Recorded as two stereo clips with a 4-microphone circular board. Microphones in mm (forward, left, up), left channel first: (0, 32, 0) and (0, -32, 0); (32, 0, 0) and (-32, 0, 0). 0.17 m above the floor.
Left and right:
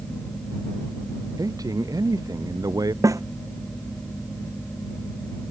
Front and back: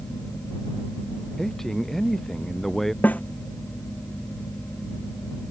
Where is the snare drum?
60° right.